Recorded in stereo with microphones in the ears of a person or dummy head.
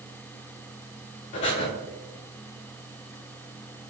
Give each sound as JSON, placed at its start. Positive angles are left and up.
{"t": 1.3, "sound": "breathing", "side_deg": 35, "distance_m": 0.7}